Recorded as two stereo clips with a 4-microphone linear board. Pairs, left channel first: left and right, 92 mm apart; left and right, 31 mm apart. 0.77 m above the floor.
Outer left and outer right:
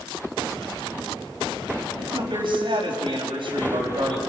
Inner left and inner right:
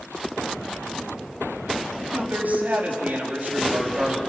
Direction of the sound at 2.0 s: 75° right (ahead or behind).